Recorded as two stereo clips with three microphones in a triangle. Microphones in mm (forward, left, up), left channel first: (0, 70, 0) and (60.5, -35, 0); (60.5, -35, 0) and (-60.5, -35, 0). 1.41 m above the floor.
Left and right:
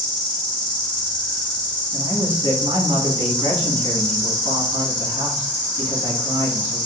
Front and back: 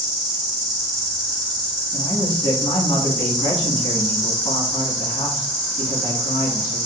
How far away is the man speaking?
About 2.0 m.